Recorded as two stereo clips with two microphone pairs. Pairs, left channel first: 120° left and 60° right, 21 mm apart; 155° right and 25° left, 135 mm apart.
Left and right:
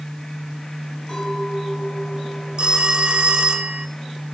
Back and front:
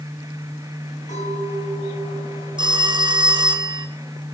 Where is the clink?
170° left, 5 m.